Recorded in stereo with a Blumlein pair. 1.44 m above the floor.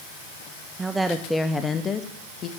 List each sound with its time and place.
0.8 s a woman speaking: 15° right, 0.9 m; by 2.5 s 35° left, 1.3 m